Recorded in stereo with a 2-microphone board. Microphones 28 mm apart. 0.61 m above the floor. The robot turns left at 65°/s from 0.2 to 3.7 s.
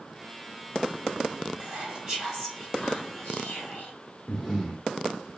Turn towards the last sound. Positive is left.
turn(degrees=20)  # may be behind; listen again after turning